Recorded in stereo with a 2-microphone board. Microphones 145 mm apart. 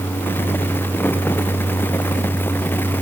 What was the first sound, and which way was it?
Only background noise.